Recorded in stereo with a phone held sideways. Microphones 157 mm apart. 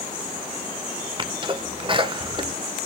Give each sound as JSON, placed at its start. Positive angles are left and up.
{"t": 1.2, "sound": "a sneeze", "side_deg": -30, "distance_m": 1.1}